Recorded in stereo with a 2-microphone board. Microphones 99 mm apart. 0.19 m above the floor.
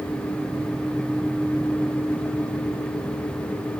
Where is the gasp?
No gasp in this recording.